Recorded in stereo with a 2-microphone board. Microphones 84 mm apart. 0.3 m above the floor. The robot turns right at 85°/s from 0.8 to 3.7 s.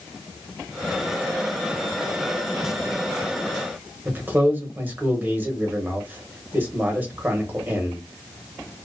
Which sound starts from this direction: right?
A man speaking, at 4.0 s.